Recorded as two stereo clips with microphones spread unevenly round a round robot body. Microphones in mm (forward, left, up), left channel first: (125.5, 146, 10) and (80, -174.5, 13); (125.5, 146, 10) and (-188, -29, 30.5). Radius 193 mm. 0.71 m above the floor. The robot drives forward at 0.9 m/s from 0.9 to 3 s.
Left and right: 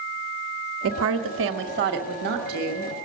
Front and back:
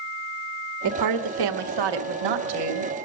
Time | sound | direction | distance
0.8 | a woman speaking | 130° right | 1.1 m